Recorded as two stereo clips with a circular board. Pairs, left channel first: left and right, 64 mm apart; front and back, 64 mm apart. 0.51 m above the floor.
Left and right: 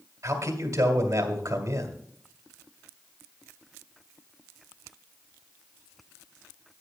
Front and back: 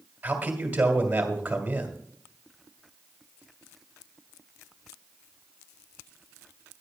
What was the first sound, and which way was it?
A man speaking, 115° right.